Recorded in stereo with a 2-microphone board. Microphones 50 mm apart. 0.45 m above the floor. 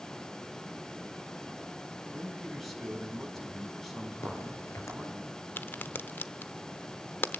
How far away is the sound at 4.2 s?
About 6.5 m.